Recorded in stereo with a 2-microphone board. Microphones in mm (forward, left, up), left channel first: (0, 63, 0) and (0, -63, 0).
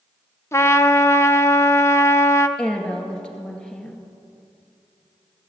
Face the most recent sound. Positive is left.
turn(degrees=5)  # may be behind; listen again after turning